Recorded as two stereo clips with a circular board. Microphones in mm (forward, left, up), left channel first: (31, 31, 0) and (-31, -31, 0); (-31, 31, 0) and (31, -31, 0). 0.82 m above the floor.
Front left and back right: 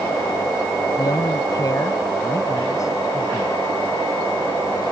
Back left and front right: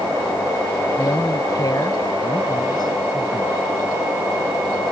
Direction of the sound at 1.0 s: 85° left.